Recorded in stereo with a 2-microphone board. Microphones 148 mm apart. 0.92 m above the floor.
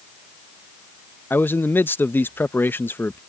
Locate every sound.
1.3 s a man speaking: 15° left (ahead or behind)